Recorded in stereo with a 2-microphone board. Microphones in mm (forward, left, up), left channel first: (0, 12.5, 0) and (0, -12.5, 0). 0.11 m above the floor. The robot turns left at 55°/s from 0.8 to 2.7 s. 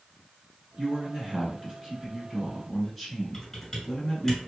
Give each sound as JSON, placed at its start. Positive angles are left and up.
{"t": 0.8, "sound": "a man speaking", "side_deg": -25, "distance_m": 1.1}
{"t": 3.3, "sound": "typing on a keyboard", "side_deg": 10, "distance_m": 1.3}